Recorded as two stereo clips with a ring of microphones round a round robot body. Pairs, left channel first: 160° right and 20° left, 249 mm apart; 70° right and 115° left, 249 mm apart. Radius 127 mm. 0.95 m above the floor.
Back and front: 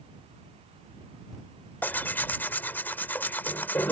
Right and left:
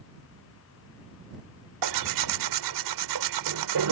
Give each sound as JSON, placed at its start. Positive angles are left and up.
{"t": 1.8, "sound": "tearing paper", "azimuth_deg": 120}